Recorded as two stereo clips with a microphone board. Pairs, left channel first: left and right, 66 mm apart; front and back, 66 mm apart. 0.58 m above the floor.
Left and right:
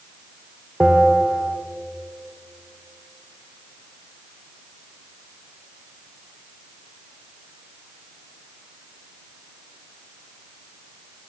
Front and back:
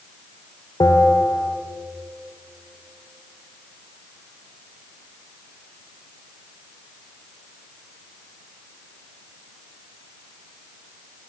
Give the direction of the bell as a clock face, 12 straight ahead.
12 o'clock.